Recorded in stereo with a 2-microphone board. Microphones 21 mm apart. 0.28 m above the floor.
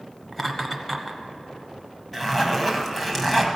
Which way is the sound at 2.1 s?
15° left (ahead or behind).